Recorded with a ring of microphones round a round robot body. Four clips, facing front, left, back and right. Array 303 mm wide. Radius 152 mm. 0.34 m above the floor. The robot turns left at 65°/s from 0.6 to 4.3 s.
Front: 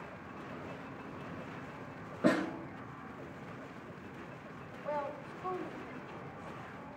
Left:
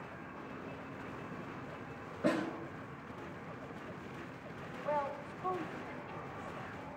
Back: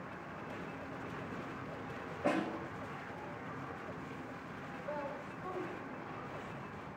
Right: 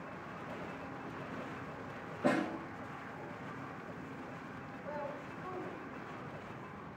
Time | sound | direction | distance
2.2 | a snare drum | 5° left | 3 m
4.8 | a woman speaking | 65° left | 2 m